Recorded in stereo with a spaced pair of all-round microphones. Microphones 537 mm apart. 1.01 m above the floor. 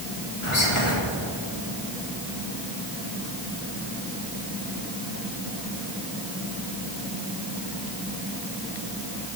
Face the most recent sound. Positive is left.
turn(degrees=65)  # may be behind; listen again after turning